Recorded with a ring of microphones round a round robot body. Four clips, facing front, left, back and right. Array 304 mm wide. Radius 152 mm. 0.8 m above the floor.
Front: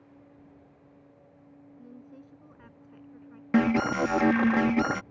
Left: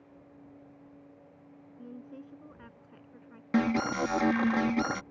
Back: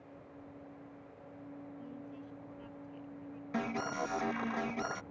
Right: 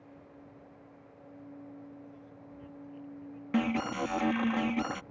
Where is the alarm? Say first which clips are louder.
Left 3 dB, front 13 dB; 15° left.